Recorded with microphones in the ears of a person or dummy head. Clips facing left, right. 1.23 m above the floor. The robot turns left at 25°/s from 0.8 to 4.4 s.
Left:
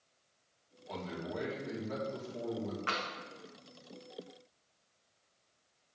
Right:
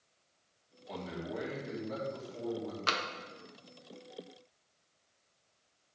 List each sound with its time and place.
0.9 s a man speaking: 155° right, 1.9 m; by 2.8 s 155° left, 1.9 m
2.9 s tapping: 50° right (ahead or behind), 0.6 m